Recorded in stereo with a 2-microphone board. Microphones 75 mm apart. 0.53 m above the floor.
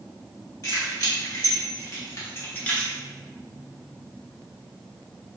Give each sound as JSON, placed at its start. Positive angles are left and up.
{"t": 0.6, "sound": "keys jangling", "side_deg": 50, "distance_m": 1.3}